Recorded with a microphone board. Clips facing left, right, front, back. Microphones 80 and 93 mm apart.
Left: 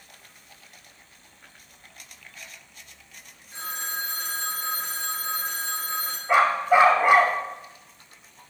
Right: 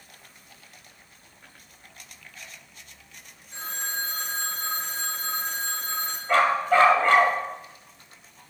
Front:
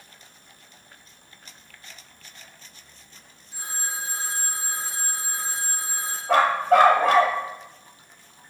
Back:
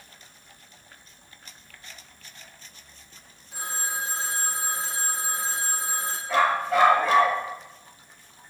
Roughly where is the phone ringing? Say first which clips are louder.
Even, back 2 dB; behind.